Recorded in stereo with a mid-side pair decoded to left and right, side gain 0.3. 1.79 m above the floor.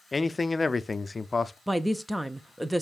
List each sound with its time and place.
0.1 s a man speaking: 35° left, 0.5 m
1.7 s a woman speaking: 10° right, 0.5 m